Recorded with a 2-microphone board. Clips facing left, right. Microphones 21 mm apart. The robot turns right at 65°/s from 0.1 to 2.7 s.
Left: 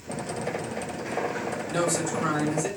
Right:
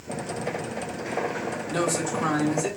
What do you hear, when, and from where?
1.7 s a man speaking: 175° left, 3.5 m; by 2.7 s 120° right, 3.5 m